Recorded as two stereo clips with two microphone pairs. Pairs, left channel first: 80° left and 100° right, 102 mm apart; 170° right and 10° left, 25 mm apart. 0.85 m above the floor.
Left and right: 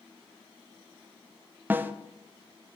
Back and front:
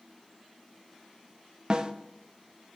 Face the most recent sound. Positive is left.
turn(degrees=-35)